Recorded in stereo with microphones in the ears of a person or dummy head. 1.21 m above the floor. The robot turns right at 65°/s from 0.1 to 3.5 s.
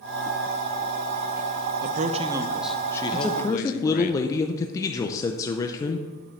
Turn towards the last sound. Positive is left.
turn(degrees=20)  # may be behind; listen again after turning